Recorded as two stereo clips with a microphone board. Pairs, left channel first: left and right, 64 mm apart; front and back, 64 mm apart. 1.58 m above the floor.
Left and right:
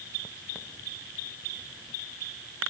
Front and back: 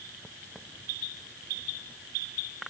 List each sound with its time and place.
Only background noise.